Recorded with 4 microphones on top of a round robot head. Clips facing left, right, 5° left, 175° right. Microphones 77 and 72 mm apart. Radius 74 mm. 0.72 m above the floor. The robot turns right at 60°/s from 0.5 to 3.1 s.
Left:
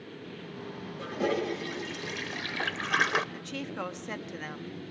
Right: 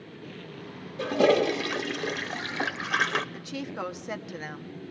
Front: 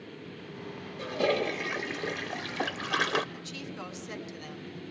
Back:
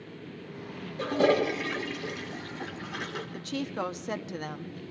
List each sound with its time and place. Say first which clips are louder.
1.0 s a toilet flushing: right 8 dB, back 4 dB; 120° right, 0.9 m; by 3.2 s 5° left, 0.9 m
3.3 s a woman speaking: right 2 dB, back 8 dB; 170° right, 0.9 m